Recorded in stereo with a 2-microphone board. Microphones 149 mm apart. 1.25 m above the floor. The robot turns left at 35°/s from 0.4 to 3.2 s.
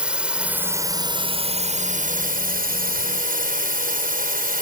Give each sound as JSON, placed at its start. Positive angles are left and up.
{"t": 0.0, "sound": "a drone", "azimuth_deg": -5}